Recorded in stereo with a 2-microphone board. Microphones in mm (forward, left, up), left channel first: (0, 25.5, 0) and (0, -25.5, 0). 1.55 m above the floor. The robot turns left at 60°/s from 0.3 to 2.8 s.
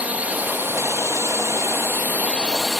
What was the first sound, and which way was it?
A drone, 30° right.